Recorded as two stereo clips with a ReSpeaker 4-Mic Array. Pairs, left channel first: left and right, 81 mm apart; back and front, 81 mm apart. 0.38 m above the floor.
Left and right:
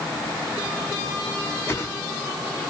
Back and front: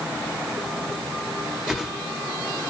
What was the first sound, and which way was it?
A whoosh, 80° left.